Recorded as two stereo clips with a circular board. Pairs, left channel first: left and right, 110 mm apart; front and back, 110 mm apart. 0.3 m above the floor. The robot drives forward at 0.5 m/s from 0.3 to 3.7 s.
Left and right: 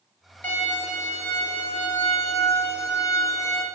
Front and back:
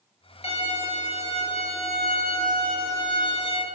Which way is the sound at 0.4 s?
20° left.